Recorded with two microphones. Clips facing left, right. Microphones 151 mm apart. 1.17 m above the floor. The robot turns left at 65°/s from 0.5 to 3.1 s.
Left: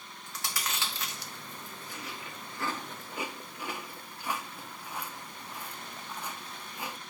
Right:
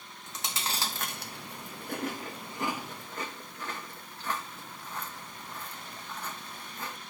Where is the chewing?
20° right (ahead or behind), 0.7 m; by 7.0 s 10° left (ahead or behind), 0.7 m.